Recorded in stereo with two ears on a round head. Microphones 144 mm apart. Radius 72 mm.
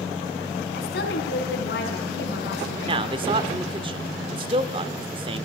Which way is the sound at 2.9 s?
30° right (ahead or behind).